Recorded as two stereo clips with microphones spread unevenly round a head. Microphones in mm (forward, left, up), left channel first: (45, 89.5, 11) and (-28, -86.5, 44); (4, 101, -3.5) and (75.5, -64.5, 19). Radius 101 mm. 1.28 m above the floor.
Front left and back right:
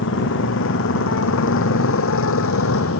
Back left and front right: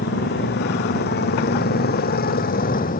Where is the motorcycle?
90° left; by 3.0 s 75° left.